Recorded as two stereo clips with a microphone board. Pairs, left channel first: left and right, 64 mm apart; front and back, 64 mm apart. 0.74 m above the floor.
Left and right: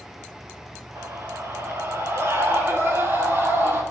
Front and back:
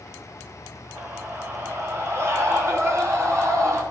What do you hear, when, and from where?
0.9 s a scream: 125° right, 3.5 m; by 3.8 s 140° right, 7 m